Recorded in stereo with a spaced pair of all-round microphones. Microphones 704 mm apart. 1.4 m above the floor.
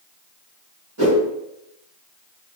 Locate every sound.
1.0 s a whoosh: 25° right (ahead or behind), 2.0 m